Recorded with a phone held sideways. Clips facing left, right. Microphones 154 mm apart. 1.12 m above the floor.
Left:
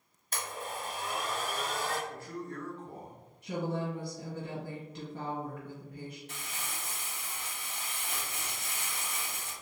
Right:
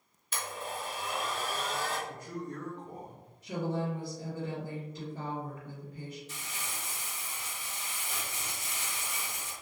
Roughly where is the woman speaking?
Left.